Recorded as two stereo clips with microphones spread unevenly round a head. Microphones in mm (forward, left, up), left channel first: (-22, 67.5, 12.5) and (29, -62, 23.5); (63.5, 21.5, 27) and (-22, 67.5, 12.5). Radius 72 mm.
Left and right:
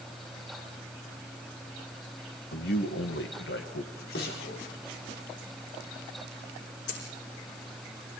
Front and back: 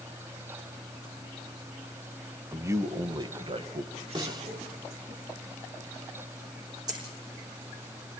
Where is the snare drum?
105° left, 3.5 m.